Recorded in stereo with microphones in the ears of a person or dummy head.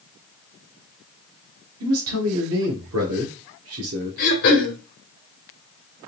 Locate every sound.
1.8 s a man speaking: 80° right, 1.0 m
4.2 s throat clearing: 55° left (ahead or behind), 1.3 m